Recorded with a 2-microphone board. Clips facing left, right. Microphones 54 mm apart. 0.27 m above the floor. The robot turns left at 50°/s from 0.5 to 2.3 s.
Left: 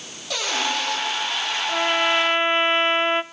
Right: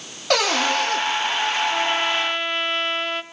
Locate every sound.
0.3 s a cupboard door: 65° right (ahead or behind), 5.5 m; by 1.0 s 40° right (ahead or behind), 5.5 m
1.7 s a trumpet: 165° left, 0.6 m; by 3.2 s 135° left, 0.6 m